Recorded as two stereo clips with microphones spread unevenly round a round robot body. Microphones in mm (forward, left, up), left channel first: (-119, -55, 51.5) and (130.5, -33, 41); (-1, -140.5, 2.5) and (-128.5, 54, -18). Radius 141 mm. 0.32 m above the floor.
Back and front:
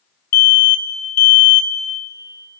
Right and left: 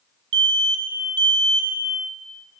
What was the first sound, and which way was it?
An alarm, 155° left.